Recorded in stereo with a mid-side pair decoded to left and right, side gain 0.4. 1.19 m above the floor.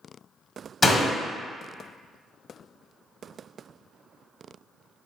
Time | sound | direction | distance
0.8 | a door slam | 30° left | 1.1 m